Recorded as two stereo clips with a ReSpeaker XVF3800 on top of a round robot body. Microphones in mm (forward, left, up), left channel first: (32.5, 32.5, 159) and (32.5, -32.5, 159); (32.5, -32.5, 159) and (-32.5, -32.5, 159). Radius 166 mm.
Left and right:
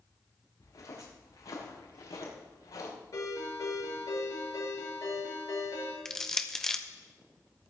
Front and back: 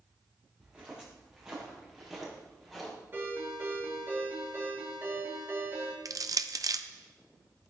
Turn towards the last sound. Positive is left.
turn(degrees=170)